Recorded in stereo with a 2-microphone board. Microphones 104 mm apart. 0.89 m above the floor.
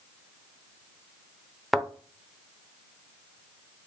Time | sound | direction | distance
1.7 | a thud | centre (ahead or behind) | 0.7 m